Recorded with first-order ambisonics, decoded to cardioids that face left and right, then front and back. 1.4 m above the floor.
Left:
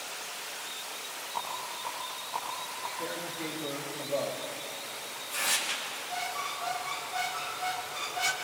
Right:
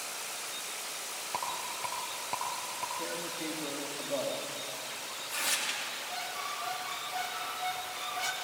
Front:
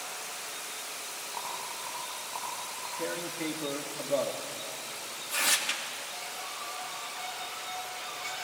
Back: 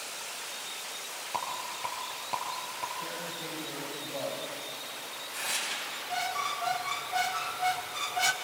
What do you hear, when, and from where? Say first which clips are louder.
1.3 s a rattle: even, back 4 dB; 125° right, 5.5 m
3.0 s tearing paper: left 1 dB, front 3 dB; 5° right, 3.5 m
5.9 s a squeak: left 2 dB, back 6 dB; 170° left, 2.5 m